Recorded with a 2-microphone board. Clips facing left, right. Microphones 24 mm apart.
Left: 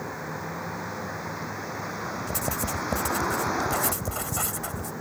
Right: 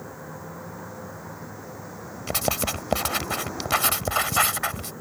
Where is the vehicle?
55° left (ahead or behind).